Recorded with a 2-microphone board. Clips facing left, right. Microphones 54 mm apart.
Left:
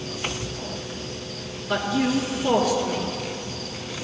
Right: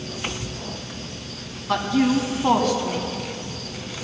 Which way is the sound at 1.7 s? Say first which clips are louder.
Right 3 dB; 55° right (ahead or behind).